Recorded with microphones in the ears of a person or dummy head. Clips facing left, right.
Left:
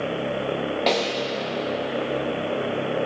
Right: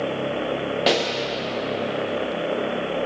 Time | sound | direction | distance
0.9 | a pop | 10° right (ahead or behind) | 1.0 m